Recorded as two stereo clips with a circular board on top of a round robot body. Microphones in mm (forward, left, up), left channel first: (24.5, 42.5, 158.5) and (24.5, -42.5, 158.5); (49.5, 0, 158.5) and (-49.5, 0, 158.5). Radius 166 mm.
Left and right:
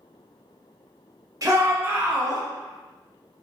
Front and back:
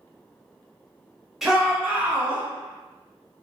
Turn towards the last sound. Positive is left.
turn(degrees=160)